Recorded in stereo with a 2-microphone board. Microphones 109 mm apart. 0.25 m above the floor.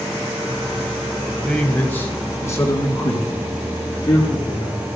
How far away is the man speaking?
About 1.0 m.